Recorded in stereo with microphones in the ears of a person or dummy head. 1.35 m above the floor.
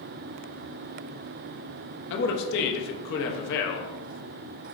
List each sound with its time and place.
2.1 s a man speaking: 65° left (ahead or behind), 0.6 m